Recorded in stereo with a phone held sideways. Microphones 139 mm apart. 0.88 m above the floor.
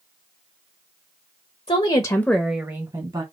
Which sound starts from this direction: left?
A woman speaking, at 1.7 s.